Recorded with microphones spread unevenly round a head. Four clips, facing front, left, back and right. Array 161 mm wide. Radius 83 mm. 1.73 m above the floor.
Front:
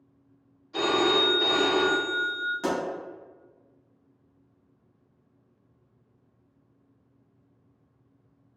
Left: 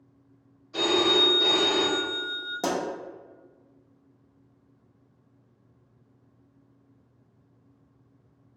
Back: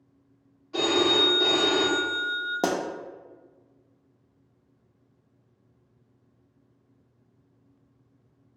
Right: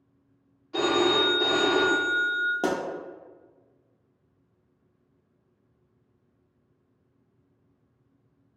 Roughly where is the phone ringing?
Behind right.